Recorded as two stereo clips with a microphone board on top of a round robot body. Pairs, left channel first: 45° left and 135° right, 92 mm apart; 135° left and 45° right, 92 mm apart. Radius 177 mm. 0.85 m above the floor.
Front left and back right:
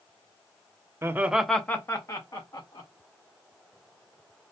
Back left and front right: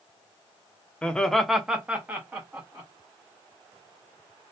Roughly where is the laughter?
Behind.